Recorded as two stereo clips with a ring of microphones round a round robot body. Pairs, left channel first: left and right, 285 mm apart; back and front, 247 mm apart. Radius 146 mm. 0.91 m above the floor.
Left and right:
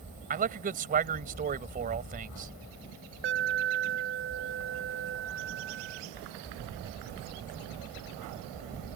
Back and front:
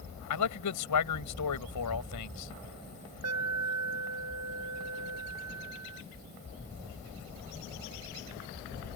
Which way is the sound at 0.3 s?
155° right.